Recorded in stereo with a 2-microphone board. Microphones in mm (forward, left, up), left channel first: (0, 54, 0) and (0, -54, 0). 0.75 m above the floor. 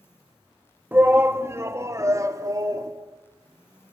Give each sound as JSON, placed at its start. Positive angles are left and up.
{"t": 0.9, "sound": "a shout", "side_deg": -20, "distance_m": 1.4}